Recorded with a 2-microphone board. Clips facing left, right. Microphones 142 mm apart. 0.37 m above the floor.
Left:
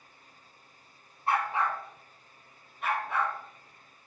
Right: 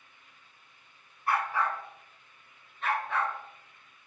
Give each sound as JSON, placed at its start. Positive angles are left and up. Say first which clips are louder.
{"t": 1.3, "sound": "a dog barking", "louder": "left 1 dB", "side_deg": 25, "distance_m": 1.5}